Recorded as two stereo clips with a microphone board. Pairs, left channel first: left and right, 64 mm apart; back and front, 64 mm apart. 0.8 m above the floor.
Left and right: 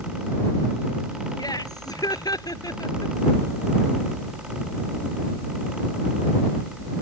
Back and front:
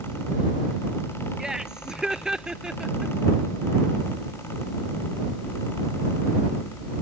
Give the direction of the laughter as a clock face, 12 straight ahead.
9 o'clock.